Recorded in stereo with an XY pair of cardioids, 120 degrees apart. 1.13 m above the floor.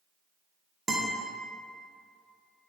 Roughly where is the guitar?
Ahead right.